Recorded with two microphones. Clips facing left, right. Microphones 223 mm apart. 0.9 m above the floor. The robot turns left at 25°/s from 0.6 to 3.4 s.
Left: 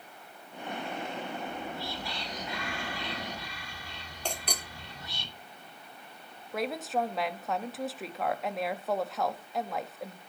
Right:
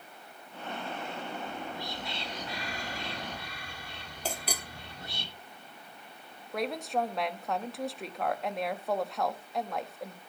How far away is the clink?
About 1.4 m.